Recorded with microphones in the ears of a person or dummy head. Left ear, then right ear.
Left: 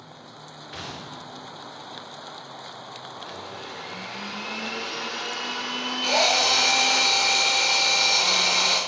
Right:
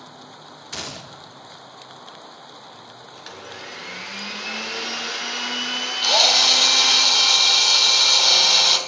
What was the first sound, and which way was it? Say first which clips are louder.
A gunshot: right 4 dB; 85° right.